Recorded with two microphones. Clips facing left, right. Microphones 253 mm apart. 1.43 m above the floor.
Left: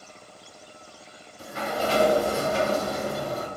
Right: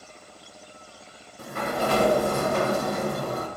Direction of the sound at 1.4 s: 55° right (ahead or behind).